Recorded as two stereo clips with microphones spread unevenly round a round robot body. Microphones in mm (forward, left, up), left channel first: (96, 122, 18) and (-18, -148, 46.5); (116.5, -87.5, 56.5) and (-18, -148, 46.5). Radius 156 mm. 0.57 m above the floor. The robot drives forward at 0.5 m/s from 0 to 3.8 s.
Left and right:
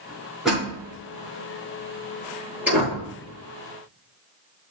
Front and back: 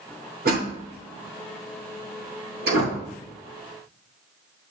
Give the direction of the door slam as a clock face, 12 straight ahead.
7 o'clock.